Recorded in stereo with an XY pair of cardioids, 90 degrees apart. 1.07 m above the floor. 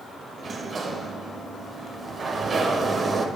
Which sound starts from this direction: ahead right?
A sliding door, at 0.4 s.